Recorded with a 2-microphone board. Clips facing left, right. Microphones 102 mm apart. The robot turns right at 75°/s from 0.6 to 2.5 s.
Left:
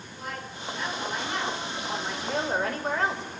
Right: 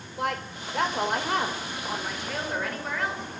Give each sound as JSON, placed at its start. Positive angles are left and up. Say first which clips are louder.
{"t": 0.2, "sound": "a woman speaking", "louder": "right 8 dB", "azimuth_deg": -110, "distance_m": 6.0}